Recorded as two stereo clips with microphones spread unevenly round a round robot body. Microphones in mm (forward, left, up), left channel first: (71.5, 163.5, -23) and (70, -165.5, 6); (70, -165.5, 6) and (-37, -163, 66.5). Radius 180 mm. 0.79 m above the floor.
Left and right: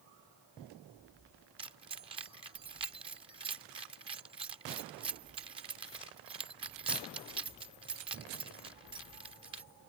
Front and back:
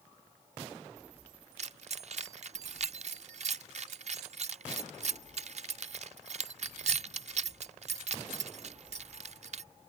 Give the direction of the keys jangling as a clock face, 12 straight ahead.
6 o'clock.